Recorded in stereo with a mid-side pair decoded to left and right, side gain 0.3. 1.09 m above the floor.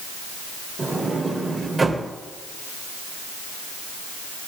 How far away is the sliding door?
About 3 m.